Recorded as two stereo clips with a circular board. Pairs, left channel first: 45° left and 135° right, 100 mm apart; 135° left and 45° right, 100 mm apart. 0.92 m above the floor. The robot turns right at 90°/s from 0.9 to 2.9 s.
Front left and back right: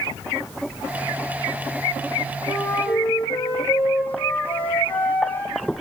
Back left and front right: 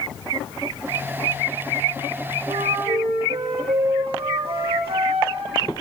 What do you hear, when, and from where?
2.5 s a flute: 65° right, 6.5 m; by 5.8 s 25° right, 6.5 m